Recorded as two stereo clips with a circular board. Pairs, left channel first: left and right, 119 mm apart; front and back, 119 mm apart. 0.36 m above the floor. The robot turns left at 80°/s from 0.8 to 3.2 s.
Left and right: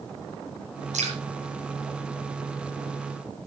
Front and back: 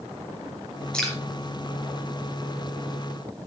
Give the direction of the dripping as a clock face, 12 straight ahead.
3 o'clock.